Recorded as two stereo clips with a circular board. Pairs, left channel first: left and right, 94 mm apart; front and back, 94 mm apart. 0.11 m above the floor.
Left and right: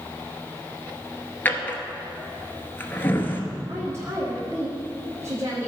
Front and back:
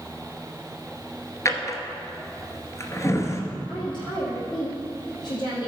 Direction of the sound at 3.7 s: 30° right.